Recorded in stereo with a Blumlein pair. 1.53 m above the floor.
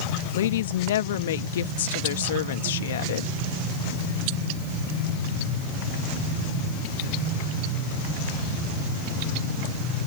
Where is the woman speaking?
60° left.